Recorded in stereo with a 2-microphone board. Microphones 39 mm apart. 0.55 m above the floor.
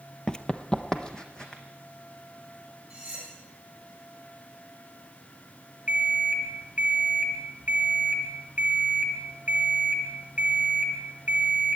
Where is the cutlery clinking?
20° right (ahead or behind), 6.5 m.